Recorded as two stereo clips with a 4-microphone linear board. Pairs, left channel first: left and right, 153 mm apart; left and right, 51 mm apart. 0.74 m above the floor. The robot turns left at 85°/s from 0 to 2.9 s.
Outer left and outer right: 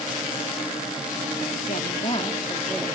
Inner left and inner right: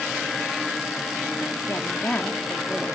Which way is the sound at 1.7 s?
90° left.